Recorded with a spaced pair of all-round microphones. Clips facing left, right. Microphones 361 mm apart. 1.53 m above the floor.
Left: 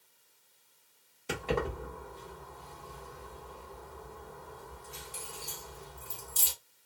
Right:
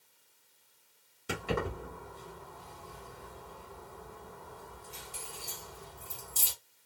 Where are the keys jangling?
20° right (ahead or behind), 1.5 m.